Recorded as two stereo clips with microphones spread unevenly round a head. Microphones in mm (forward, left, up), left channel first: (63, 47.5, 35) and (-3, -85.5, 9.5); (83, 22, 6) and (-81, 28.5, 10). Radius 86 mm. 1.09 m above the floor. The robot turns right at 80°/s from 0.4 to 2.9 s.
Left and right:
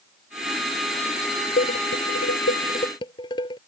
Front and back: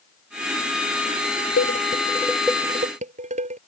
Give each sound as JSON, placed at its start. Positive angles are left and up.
{"t": 1.6, "sound": "dishes clattering", "azimuth_deg": 25}